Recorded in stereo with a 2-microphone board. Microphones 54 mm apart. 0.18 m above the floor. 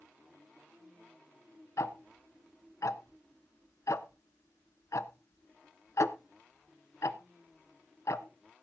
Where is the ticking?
65° left (ahead or behind), 0.6 m.